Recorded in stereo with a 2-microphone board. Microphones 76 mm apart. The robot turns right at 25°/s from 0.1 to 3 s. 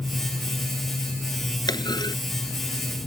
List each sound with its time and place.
1.7 s a clunk: 75° left (ahead or behind); by 2.1 s 65° left (ahead or behind)